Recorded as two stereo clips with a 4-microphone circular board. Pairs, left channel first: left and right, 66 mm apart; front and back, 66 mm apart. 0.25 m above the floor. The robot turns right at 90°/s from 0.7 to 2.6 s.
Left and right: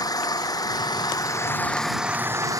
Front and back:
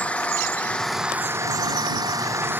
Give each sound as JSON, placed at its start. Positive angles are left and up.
{"t": 0.0, "sound": "an engine running", "azimuth_deg": 70}